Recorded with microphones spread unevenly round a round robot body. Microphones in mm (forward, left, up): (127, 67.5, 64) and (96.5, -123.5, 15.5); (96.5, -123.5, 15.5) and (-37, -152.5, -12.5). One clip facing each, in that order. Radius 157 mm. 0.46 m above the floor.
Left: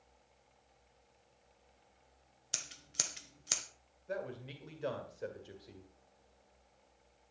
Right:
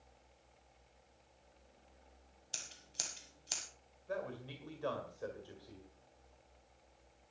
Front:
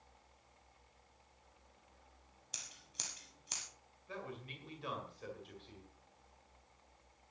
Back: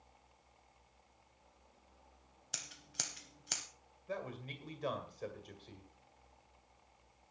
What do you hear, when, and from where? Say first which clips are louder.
2.5 s scissors: left 5 dB, back 6 dB; 135° left, 0.7 m
4.1 s a man speaking: left 1 dB, back 4 dB; 160° left, 1.9 m